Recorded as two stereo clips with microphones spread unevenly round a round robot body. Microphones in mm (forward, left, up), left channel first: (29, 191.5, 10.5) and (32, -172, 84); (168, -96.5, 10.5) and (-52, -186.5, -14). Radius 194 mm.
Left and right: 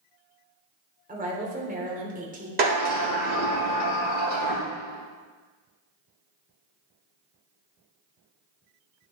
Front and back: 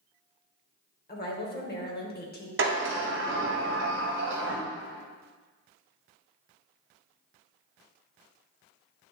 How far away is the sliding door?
About 1.7 m.